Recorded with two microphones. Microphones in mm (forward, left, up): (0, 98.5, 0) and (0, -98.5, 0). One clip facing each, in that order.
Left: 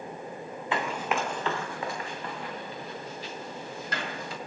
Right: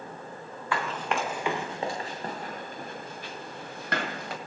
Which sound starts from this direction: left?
Running footsteps, at 0.7 s.